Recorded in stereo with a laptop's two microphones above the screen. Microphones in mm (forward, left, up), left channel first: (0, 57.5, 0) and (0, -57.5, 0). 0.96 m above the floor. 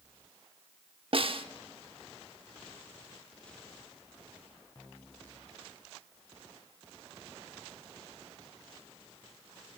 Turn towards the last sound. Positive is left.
turn(degrees=-55)  # may be behind; listen again after turning